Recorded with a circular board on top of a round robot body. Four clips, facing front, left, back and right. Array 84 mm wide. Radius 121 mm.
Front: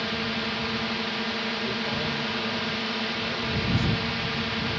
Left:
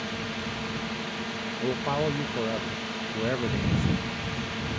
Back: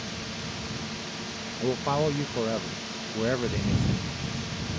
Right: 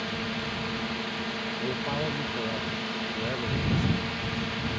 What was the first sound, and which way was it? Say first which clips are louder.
A drone: right 1 dB, front 8 dB; straight ahead.